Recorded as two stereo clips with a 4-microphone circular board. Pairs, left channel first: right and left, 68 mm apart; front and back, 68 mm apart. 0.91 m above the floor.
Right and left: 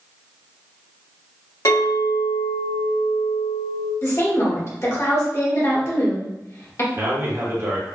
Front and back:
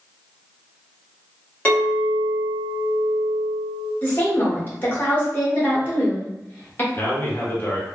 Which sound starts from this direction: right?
A clink, at 1.6 s.